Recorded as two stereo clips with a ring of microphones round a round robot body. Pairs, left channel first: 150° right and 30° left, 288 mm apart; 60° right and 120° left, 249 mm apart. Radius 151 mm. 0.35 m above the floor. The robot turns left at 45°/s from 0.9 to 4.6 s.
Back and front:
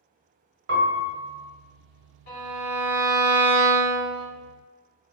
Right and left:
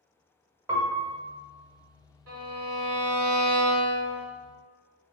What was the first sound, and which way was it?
A piano, 45° left.